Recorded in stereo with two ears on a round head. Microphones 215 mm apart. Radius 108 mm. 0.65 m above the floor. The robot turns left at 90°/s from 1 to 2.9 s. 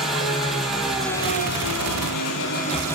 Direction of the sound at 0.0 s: Straight behind.